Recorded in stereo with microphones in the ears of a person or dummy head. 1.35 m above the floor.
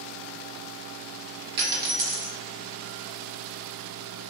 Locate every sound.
1.6 s a dropped coin: 55° right (ahead or behind), 1.5 m